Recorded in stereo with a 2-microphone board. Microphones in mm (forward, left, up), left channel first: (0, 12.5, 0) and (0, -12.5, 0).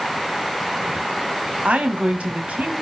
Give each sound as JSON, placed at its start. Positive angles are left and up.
{"t": 1.6, "sound": "a woman speaking", "side_deg": -80, "distance_m": 1.8}